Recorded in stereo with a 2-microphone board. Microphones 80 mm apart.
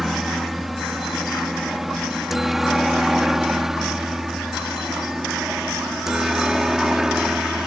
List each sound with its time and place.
0.0 s a helicopter: centre (ahead or behind); by 7.7 s 5° right (ahead or behind)